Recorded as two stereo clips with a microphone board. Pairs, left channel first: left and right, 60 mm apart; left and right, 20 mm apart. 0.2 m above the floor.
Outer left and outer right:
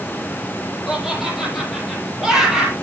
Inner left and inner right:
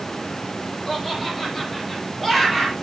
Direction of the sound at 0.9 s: 5° right (ahead or behind).